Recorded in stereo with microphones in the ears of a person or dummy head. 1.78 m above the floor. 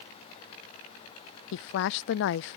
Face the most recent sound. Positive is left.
turn(degrees=70)  # may be behind; listen again after turning